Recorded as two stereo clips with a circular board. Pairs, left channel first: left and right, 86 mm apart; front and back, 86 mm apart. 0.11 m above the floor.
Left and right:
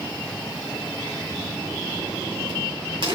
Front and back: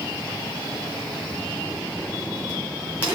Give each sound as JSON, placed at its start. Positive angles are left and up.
{"t": 1.7, "sound": "a crack", "azimuth_deg": -110, "distance_m": 3.0}